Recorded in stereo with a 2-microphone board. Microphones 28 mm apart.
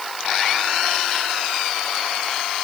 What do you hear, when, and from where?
Only background noise.